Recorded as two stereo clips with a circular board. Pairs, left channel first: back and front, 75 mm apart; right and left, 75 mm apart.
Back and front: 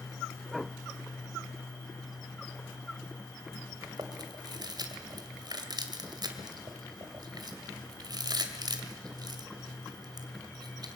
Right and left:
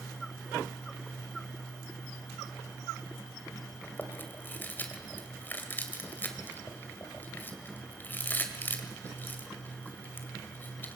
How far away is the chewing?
About 2 m.